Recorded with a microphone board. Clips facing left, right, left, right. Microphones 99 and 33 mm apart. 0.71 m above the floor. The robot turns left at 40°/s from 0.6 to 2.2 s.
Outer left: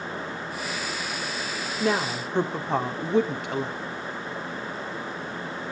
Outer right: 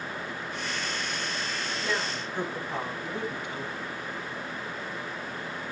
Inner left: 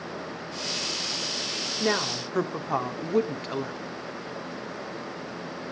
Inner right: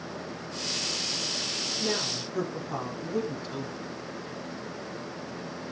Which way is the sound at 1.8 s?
60° left (ahead or behind).